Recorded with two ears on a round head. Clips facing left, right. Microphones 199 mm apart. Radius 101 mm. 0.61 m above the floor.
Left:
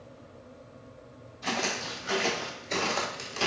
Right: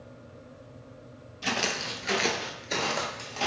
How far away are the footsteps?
About 0.9 m.